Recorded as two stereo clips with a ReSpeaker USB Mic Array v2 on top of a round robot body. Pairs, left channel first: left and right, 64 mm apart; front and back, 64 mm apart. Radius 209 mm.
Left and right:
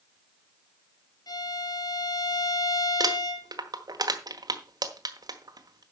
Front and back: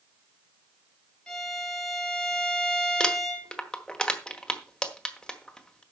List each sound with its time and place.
1.3 s a violin: 75° left, 3.5 m
3.0 s crumpling: 80° right, 1.6 m